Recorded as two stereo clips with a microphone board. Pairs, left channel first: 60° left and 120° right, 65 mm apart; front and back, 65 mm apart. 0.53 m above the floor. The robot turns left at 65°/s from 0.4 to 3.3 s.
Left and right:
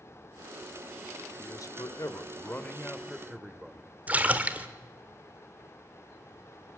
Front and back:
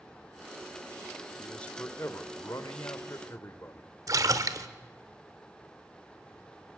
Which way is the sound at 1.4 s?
85° left.